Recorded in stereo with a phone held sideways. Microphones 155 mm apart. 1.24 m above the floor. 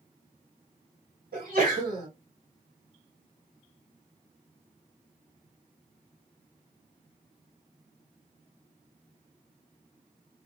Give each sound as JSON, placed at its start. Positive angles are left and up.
{"t": 1.3, "sound": "a sneeze", "side_deg": -75, "distance_m": 2.5}